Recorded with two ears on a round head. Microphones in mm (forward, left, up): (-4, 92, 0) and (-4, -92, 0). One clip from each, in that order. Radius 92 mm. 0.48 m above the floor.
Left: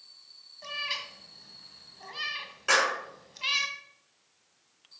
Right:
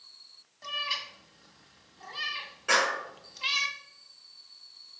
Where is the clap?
35° left (ahead or behind), 6 m.